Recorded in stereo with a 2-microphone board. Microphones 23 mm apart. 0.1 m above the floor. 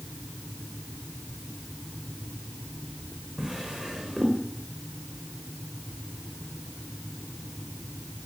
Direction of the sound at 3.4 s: 25° right (ahead or behind).